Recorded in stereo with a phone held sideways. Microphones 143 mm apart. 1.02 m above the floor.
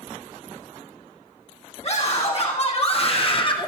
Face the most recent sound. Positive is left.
turn(degrees=30)  # may be behind; listen again after turning